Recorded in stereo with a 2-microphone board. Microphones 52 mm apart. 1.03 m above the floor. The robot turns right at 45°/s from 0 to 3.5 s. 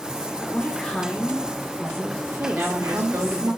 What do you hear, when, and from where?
0.4 s a woman speaking: 150° left, 1.8 m; by 3.5 s 75° right, 1.8 m
2.5 s a woman speaking: 125° right, 3 m; by 3.5 s 80° right, 3 m